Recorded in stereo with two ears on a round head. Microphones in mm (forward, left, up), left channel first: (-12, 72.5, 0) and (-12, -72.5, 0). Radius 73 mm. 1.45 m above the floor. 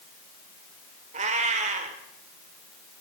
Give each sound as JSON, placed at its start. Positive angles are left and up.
{"t": 1.1, "sound": "a cat meowing", "side_deg": -45, "distance_m": 2.0}